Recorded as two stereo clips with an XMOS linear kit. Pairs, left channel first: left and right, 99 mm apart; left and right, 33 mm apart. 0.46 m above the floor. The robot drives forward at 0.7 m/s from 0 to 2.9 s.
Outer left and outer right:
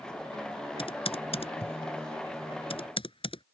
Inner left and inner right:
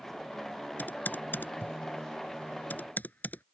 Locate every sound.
0.8 s typing on a keyboard: 65° left (ahead or behind)